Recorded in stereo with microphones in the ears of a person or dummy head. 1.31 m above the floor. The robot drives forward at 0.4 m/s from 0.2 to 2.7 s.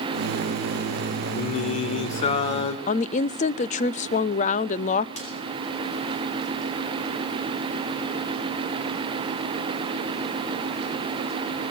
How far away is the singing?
About 1.8 m.